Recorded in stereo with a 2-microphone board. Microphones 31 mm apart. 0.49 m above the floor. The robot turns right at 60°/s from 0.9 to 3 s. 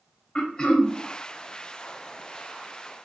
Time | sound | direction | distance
0.3 | throat clearing | 30° left (ahead or behind) | 0.7 m